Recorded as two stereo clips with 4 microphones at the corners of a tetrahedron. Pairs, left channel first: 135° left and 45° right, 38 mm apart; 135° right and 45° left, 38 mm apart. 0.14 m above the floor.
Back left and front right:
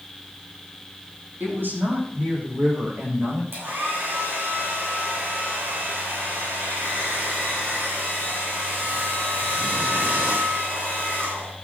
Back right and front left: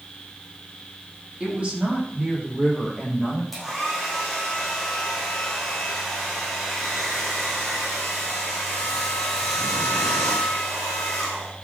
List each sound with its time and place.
1.4 s a woman speaking: 20° right, 5.5 m; by 3.4 s 15° right, 7.5 m
3.5 s a hair dryer: 45° right, 6.5 m